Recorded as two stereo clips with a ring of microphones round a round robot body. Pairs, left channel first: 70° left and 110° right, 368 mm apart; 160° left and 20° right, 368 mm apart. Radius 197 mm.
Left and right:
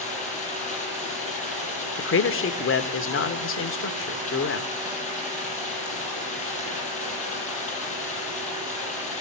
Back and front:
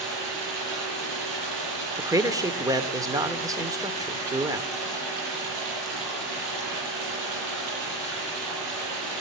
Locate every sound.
0.0 s running water: 5° right, 9.5 m
2.0 s a man speaking: 50° left, 1.5 m